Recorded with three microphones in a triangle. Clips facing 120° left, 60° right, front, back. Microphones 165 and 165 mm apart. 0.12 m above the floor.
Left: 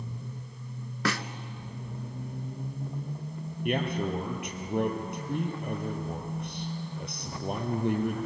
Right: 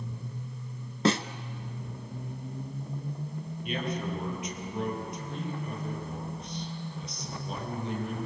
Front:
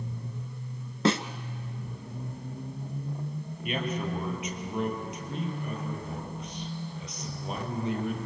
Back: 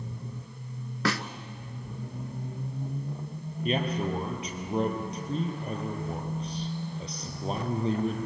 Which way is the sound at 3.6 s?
130° left.